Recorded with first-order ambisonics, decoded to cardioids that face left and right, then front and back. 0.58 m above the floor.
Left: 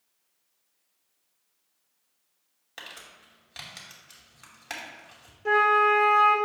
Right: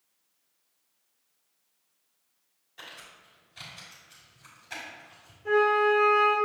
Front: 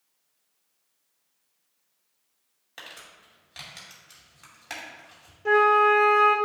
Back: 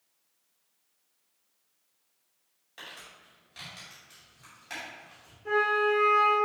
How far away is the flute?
About 1.3 m.